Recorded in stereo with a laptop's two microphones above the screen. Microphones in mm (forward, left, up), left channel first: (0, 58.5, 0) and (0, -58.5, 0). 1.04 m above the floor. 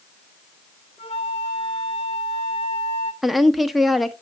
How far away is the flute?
About 1.5 m.